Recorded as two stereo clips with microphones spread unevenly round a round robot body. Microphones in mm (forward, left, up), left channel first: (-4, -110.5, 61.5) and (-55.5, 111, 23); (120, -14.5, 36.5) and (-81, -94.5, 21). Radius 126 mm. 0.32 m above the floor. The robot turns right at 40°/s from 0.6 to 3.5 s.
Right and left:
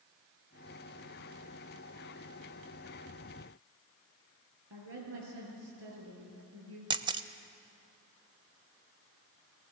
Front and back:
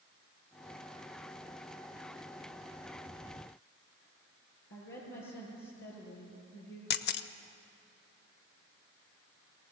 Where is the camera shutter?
50° left, 0.7 m.